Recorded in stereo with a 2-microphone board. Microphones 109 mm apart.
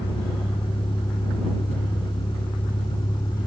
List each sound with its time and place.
0.0 s a vehicle: 50° left (ahead or behind); by 3.5 s 45° left (ahead or behind)